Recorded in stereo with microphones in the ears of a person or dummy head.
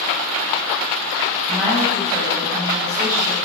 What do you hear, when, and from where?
1.5 s a woman speaking: 5° left (ahead or behind), 5.5 m